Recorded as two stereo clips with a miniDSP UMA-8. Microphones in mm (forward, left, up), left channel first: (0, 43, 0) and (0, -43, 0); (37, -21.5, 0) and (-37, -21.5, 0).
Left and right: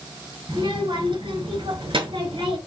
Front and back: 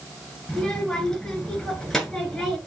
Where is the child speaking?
85° right, 5 m.